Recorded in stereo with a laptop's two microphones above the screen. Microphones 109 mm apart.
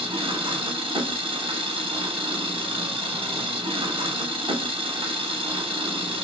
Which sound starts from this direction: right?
An engine running, at 0.0 s.